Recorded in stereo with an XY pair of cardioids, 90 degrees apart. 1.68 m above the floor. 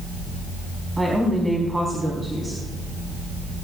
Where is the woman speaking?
15° right, 4.5 m.